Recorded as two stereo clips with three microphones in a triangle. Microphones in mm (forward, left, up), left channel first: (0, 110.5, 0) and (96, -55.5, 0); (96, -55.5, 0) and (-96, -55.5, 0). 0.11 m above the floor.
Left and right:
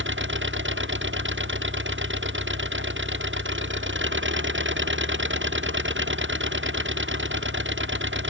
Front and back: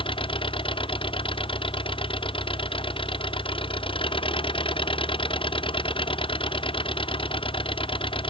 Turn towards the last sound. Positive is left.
turn(degrees=-65)